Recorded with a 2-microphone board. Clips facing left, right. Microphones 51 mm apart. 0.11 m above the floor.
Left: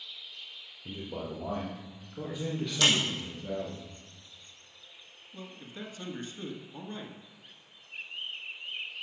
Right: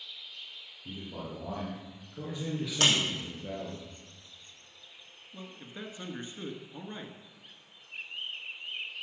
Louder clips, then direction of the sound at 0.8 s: Left 3 dB; 35° left (ahead or behind).